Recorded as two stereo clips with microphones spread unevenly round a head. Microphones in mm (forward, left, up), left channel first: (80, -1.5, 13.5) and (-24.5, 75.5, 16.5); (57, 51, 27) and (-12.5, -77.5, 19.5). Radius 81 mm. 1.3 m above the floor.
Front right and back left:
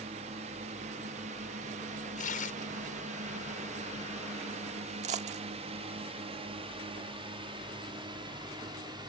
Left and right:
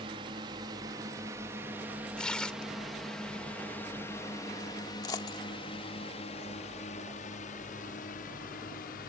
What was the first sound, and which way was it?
A drone, 175° right.